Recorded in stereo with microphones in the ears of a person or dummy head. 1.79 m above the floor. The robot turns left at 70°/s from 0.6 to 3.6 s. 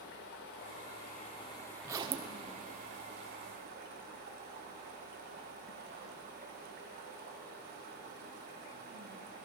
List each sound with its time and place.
0.0 s running water: 90° left, 1.6 m; by 9.4 s 120° right, 1.6 m
1.8 s a zipper: 15° right, 0.9 m; by 2.4 s 55° right, 0.9 m